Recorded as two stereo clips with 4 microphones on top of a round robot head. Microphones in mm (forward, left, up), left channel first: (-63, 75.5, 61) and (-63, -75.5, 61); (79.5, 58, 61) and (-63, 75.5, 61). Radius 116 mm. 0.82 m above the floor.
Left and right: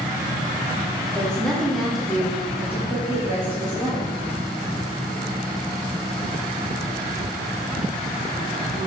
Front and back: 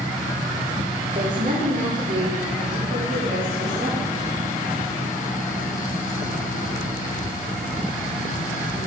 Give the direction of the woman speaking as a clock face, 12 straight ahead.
6 o'clock.